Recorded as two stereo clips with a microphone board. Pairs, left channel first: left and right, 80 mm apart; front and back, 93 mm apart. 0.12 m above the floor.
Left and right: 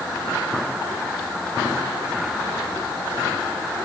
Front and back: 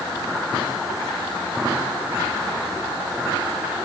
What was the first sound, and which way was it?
Only background noise.